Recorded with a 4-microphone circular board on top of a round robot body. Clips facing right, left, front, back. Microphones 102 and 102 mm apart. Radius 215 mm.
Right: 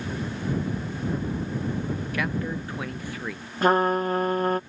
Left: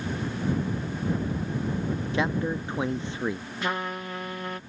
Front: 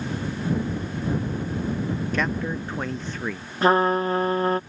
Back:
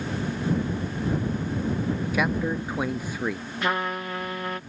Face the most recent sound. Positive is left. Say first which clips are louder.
# right 11 dB, front 9 dB
turn(degrees=-50)